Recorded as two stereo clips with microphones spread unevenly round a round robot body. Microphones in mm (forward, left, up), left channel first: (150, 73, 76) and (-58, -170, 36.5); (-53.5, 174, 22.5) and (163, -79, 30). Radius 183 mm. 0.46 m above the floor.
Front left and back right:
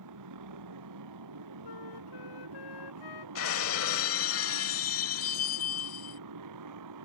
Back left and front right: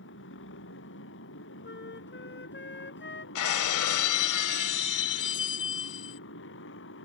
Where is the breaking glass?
100° left.